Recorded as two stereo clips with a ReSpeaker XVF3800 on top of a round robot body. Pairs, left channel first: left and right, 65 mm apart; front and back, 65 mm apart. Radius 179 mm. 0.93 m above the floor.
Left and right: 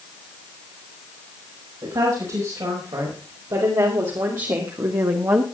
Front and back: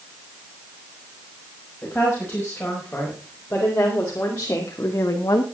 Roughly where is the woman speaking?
Right.